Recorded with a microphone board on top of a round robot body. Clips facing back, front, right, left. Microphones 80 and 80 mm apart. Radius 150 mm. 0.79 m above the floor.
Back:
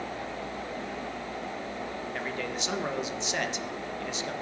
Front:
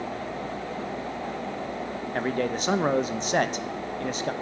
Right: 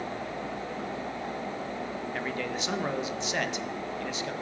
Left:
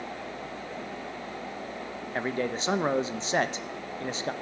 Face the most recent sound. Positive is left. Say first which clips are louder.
# front 9 dB, left 6 dB
turn(degrees=40)